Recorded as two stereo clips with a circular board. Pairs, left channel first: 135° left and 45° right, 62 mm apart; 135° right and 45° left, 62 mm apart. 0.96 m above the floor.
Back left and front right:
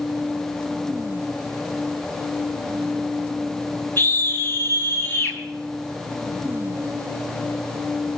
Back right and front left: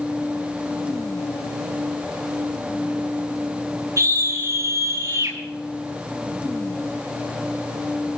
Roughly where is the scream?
Left.